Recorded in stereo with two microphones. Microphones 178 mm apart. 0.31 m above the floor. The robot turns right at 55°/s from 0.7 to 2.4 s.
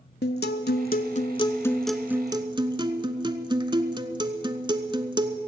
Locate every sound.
0.2 s a guitar: 115° left, 0.7 m; by 5.4 s 155° right, 0.7 m